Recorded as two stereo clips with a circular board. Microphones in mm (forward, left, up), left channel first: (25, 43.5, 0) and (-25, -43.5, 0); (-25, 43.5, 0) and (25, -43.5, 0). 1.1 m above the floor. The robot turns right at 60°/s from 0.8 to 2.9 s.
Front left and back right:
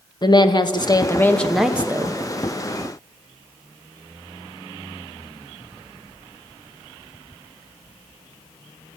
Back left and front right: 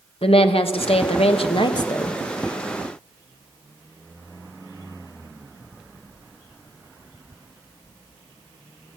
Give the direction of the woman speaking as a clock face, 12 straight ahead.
9 o'clock.